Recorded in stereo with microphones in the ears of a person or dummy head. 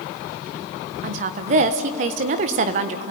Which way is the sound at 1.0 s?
50° right (ahead or behind).